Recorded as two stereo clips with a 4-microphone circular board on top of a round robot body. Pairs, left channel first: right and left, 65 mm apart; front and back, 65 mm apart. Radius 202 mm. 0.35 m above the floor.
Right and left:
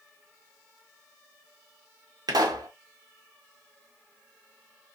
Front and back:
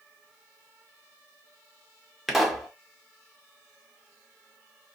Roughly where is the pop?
Left.